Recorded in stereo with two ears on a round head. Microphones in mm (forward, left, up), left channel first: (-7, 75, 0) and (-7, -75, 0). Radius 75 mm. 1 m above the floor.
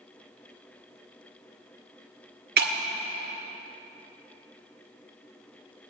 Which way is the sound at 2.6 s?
65° right (ahead or behind).